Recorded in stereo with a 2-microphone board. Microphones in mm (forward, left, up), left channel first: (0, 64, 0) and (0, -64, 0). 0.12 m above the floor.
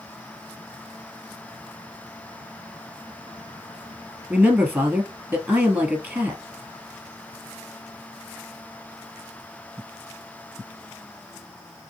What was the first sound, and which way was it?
A man speaking, 15° right (ahead or behind).